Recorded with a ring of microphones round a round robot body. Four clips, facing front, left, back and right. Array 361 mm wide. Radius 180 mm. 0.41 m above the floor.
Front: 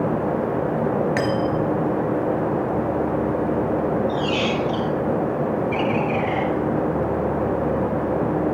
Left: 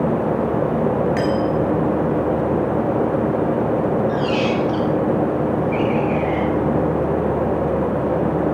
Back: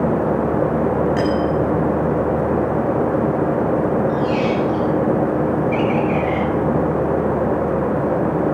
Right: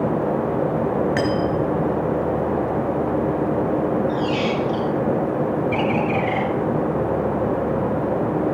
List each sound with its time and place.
1.2 s cutlery clinking: 35° right, 4 m
4.1 s a squeak: 25° left, 2 m
5.7 s a bird: 70° right, 6.5 m